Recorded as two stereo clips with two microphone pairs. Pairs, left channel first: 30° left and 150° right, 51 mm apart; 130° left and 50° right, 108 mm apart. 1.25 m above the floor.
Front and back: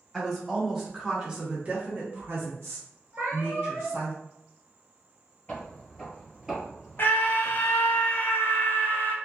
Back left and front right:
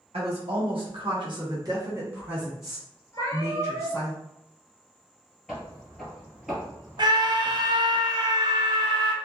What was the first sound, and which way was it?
A woman speaking, 60° right.